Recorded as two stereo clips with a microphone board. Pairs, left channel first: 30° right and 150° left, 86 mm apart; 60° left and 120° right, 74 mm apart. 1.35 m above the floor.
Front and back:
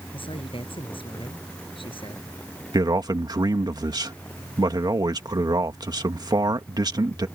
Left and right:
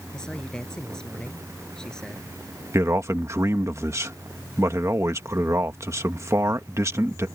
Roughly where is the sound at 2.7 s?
Behind.